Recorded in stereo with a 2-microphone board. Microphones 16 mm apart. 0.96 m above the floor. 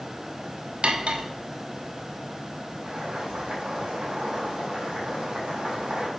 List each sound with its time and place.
0.8 s cutlery clinking: 80° right, 1.1 m
2.8 s boiling: 90° right, 4 m